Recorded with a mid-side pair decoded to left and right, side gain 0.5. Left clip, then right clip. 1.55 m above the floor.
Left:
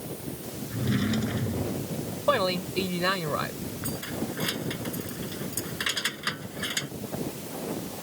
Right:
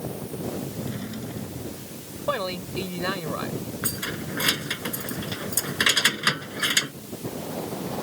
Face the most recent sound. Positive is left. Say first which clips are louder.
# right 1 dB
turn(degrees=-50)